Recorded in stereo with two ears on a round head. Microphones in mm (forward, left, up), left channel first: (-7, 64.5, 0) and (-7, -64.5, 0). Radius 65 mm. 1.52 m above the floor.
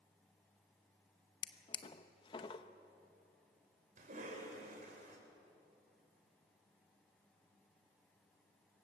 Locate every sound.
1.4 s a drawer: 35° left (ahead or behind), 0.8 m
4.0 s a cough: 60° right (ahead or behind), 5.5 m